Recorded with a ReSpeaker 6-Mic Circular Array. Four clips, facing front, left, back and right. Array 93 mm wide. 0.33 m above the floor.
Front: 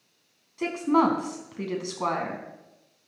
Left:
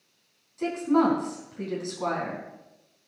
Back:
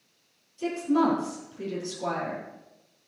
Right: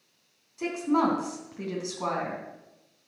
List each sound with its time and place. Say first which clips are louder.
0.6 s a woman speaking: left 2 dB, front 2 dB; 5° right, 3 m